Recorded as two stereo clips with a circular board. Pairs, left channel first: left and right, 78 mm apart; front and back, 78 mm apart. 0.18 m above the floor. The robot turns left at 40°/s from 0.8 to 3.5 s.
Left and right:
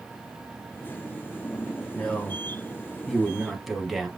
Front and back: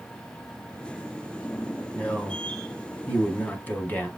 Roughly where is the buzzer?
No buzzer in this recording.